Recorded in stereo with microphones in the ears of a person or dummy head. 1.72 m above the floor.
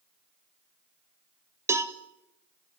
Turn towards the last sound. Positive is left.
turn(degrees=-15)  # may be behind; listen again after turning